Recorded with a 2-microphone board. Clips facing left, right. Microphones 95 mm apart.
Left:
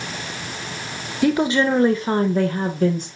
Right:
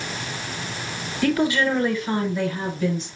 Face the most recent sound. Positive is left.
turn(degrees=50)  # may be behind; listen again after turning